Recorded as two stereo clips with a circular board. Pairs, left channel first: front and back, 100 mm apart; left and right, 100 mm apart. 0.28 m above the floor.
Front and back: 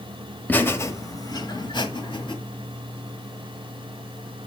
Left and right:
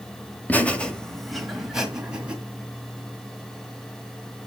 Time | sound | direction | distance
0.5 | laughter | 45° left | 1.0 m